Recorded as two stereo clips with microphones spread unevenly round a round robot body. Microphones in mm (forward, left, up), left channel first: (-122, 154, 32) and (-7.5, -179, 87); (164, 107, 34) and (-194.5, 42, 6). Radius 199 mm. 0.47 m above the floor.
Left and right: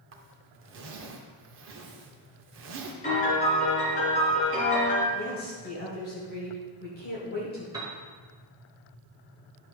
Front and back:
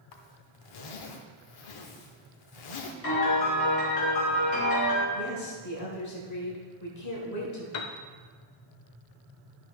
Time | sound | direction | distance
0.1 | a zipper | 10° right | 0.7 m
3.0 | a piano | 40° left | 2.5 m
5.1 | a woman speaking | 50° left | 1.6 m
7.7 | a piano | 10° left | 0.7 m